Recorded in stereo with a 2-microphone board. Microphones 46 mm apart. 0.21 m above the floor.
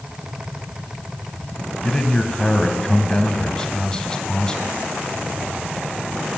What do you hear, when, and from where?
1.8 s a man speaking: 15° left (ahead or behind), 1.1 m